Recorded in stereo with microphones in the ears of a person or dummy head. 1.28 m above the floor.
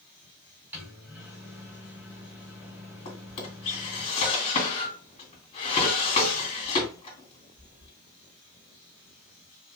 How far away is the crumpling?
No crumpling in this recording.